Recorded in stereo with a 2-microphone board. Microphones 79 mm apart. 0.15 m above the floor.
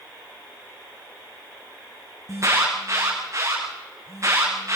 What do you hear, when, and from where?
2.3 s an alarm: 40° right (ahead or behind), 6.5 m